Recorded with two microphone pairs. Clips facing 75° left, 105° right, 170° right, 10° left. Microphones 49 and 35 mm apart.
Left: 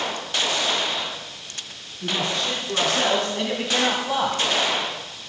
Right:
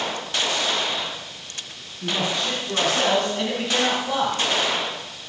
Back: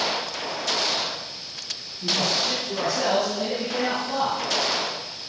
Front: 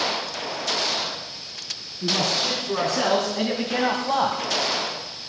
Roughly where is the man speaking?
Ahead.